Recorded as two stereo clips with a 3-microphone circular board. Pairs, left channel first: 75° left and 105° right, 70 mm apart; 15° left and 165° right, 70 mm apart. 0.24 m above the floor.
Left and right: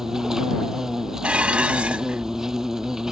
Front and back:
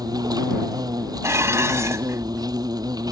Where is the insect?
170° left.